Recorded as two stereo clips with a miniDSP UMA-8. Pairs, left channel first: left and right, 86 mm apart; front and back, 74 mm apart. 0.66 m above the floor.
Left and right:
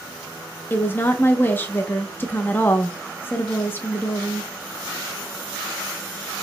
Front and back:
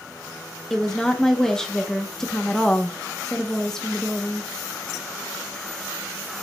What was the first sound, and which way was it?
A woman speaking, 75° left.